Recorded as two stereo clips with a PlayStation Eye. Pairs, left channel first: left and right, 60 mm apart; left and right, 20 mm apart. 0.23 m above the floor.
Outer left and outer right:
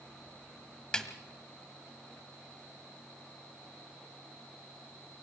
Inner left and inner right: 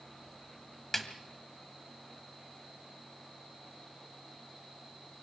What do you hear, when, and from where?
0.9 s a snare drum: 15° left (ahead or behind), 1.5 m